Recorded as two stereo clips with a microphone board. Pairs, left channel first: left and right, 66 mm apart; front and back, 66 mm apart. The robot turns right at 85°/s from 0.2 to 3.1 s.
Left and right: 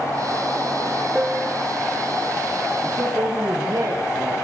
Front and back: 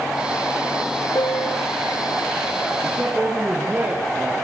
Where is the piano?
15° right, 2.5 m; by 1.9 s 45° left, 2.5 m.